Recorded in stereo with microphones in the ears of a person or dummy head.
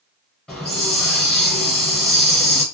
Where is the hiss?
5° left (ahead or behind), 2 m.